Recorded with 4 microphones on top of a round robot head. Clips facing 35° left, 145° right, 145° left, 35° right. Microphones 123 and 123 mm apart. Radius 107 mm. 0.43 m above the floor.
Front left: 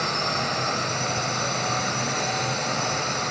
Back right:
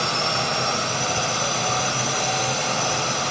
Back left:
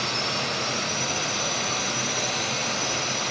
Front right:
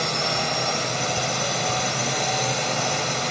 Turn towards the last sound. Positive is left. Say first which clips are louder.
# back right 2 dB, front right 4 dB
turn(degrees=-70)